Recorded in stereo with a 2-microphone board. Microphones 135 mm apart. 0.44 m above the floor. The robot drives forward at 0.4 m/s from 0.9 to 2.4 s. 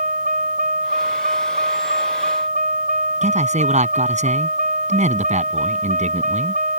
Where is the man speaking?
65° right (ahead or behind).